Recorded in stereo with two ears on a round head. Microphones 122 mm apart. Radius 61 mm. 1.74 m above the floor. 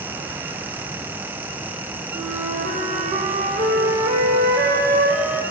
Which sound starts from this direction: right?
A flute, at 2.1 s.